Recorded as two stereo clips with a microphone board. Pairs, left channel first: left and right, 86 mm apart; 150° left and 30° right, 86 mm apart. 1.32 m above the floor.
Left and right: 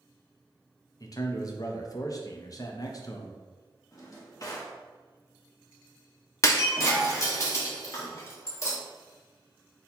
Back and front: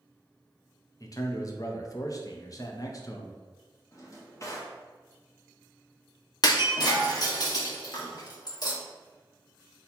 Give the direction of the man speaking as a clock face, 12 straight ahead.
8 o'clock.